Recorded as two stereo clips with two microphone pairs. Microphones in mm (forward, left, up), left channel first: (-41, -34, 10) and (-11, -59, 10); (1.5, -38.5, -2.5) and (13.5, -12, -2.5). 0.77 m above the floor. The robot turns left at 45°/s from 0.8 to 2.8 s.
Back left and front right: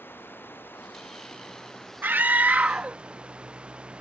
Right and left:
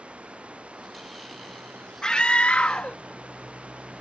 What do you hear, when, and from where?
0.0 s running water: 115° left; by 4.0 s 25° left
2.0 s a scream: 55° right; by 3.0 s 90° right